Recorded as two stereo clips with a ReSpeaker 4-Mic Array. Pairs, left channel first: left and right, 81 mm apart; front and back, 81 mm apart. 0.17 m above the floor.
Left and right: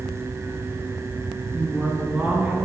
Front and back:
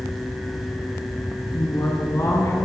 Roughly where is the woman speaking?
Ahead.